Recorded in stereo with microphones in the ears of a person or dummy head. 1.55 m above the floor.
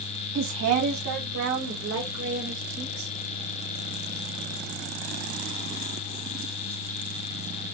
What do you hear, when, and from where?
0.3 s a woman speaking: 55° right (ahead or behind), 0.7 m; by 3.1 s 65° right (ahead or behind), 4 m